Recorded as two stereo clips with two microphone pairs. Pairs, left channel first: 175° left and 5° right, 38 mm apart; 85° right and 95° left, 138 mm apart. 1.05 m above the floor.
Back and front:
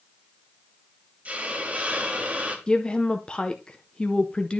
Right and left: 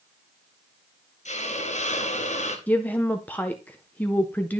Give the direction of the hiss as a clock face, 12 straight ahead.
2 o'clock.